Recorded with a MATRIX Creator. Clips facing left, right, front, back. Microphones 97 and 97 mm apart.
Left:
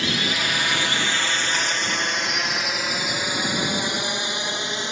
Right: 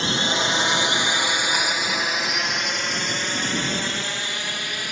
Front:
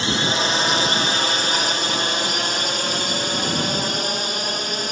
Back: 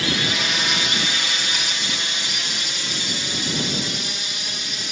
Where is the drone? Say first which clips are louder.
Right 2 dB, front 3 dB; 45° right; by 4.9 s 30° left.